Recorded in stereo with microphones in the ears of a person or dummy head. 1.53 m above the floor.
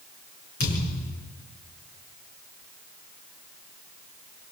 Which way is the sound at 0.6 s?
60° left (ahead or behind).